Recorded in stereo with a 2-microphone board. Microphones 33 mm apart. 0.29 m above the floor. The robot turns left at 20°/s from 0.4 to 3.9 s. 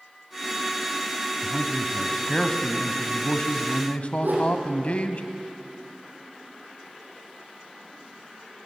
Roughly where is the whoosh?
Right.